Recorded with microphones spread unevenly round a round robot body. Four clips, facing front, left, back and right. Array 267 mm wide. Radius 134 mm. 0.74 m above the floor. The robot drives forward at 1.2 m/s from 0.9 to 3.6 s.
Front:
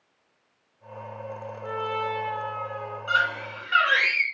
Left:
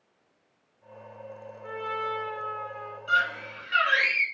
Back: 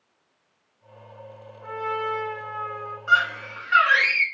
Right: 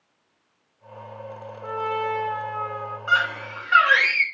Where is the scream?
75° right, 6.5 m; by 4.2 s 80° right, 6.5 m.